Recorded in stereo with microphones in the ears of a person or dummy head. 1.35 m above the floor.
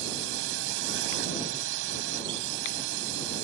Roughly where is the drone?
Right.